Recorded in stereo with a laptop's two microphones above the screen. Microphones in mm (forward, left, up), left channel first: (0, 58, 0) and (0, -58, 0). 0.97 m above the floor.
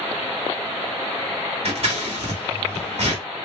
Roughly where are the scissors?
Right.